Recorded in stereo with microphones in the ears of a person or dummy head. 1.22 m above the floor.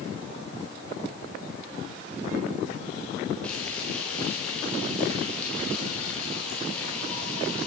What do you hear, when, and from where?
3.4 s frying: 5° left (ahead or behind), 6.5 m